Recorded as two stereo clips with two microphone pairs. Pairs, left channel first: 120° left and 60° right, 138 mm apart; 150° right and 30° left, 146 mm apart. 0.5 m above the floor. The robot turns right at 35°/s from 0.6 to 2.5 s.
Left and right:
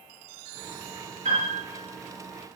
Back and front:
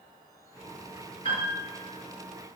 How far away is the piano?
About 5 m.